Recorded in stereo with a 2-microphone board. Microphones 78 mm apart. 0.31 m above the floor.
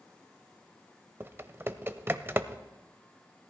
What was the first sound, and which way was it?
Typing on a keyboard, 30° right (ahead or behind).